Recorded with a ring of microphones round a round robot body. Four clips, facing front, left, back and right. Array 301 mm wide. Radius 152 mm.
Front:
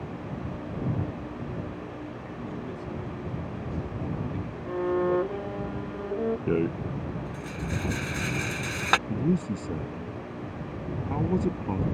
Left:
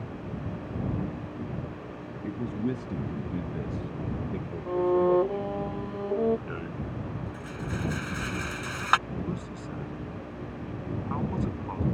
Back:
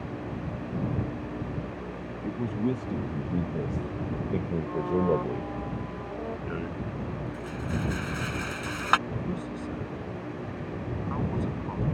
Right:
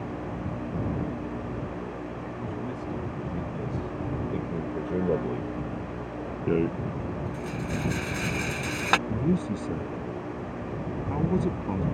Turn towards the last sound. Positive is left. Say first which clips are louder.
# right 8 dB, front 6 dB
turn(degrees=-40)